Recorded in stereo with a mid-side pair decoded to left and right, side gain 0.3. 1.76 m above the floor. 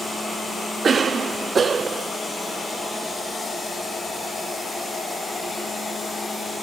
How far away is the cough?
About 0.9 m.